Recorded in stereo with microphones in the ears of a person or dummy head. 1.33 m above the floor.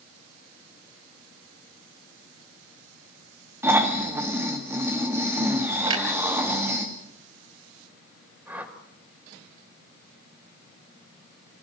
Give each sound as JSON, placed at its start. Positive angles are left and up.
{"t": 3.6, "sound": "snoring", "side_deg": -20, "distance_m": 2.0}
{"t": 5.9, "sound": "a clunk", "side_deg": -20, "distance_m": 2.5}
{"t": 8.5, "sound": "a whoosh", "side_deg": -5, "distance_m": 2.0}